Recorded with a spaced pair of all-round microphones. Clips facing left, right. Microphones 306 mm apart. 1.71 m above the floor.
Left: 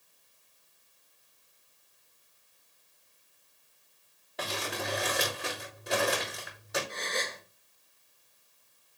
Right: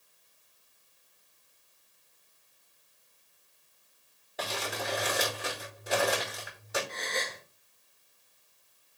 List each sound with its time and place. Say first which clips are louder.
4.4 s crumpling: even; centre (ahead or behind), 3.5 m
6.9 s a gasp: even; 10° left (ahead or behind), 2.5 m